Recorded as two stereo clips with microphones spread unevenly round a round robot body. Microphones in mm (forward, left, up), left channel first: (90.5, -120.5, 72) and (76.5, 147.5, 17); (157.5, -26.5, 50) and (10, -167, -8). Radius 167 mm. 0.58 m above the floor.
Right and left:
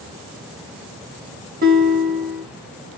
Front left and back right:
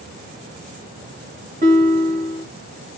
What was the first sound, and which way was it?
A guitar, 155° left.